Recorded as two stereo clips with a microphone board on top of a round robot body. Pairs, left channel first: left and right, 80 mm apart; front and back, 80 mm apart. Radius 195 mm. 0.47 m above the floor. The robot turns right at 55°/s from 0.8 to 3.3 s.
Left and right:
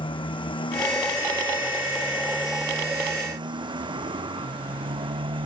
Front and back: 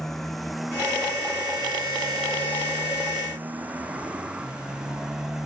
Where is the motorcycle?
85° left; by 5.5 s 95° right.